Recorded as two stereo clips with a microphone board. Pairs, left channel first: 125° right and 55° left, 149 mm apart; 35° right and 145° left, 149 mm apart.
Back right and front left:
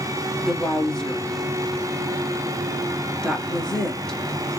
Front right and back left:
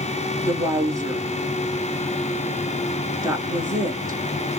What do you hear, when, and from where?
0.4 s a woman speaking: 155° left, 1.1 m